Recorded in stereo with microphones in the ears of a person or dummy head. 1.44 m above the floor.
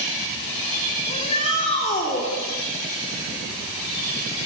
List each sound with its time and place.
1.1 s a shout: 35° left (ahead or behind), 4 m